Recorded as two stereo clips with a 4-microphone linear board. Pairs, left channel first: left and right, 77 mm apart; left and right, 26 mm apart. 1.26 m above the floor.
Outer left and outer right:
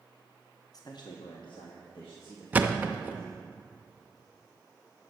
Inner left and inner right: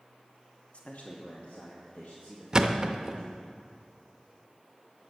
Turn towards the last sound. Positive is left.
turn(degrees=-20)  # may be behind; listen again after turning